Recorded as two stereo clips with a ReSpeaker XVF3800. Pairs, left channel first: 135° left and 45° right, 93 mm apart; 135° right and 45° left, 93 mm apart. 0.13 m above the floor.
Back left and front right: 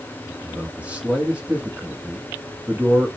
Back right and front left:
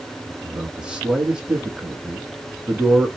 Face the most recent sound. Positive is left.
turn(degrees=-5)